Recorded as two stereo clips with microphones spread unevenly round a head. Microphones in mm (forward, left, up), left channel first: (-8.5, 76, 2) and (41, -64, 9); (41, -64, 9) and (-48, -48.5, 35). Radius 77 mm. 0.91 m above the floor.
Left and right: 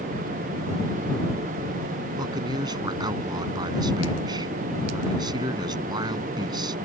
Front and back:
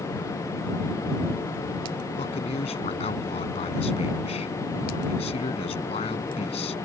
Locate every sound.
2.2 s a man speaking: 10° right